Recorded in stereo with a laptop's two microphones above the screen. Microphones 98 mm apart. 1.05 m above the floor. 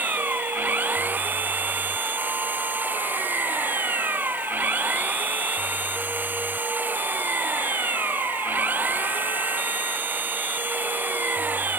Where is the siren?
I don't hear a siren.